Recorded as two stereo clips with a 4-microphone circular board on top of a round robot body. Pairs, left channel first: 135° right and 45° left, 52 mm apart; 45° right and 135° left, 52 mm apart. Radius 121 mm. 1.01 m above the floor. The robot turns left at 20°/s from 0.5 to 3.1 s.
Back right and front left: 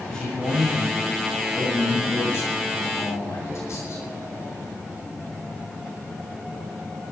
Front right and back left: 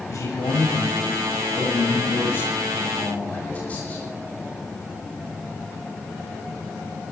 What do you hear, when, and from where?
0.1 s a man speaking: 55° right, 8.5 m; by 4.0 s 110° right, 8.5 m